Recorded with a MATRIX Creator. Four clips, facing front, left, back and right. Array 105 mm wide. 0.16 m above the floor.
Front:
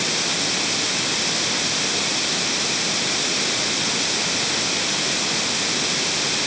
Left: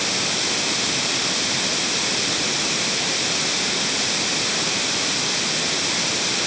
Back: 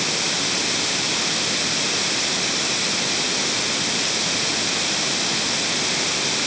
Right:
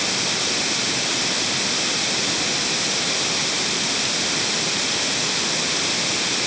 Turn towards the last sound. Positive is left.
No sound to turn to.